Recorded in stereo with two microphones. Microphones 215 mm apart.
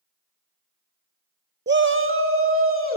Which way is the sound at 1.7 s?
55° right (ahead or behind).